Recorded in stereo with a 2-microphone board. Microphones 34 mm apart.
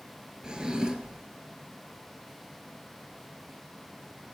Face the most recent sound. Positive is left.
turn(degrees=-20)  # may be behind; listen again after turning